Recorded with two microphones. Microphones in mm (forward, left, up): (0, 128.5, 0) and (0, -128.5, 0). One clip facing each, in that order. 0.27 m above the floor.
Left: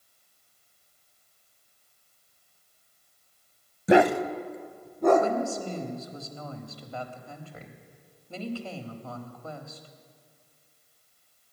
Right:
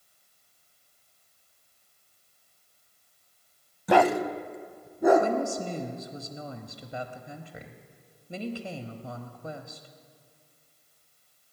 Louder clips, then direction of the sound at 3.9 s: Left 3 dB; 25° left (ahead or behind).